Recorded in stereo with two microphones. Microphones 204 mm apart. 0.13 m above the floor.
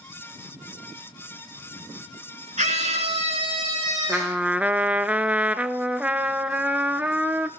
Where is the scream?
35° right (ahead or behind), 2 m; by 4.4 s 20° right (ahead or behind), 2.5 m.